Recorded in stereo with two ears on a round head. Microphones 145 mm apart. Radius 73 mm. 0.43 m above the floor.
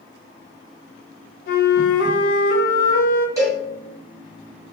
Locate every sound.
1.5 s a flute: 60° left (ahead or behind), 0.5 m
3.4 s a cowbell: 20° right (ahead or behind), 1.3 m